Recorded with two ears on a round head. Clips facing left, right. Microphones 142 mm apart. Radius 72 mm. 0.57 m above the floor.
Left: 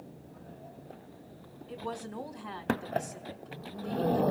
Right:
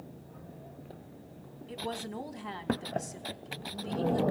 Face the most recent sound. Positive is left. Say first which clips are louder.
# right 1 dB
turn(degrees=-25)  # may be behind; listen again after turning